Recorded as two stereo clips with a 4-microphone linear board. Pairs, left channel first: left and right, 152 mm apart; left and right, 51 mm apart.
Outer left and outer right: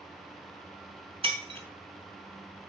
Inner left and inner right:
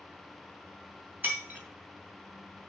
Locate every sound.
1.2 s breaking glass: 35° right (ahead or behind), 2.5 m